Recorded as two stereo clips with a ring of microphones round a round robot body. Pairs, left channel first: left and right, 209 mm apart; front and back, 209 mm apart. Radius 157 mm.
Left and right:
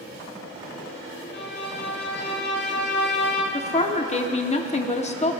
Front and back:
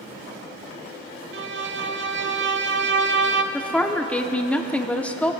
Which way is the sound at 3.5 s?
80° left.